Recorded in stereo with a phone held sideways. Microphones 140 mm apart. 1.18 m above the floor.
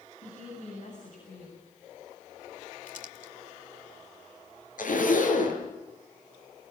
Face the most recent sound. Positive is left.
turn(degrees=75)  # may be behind; listen again after turning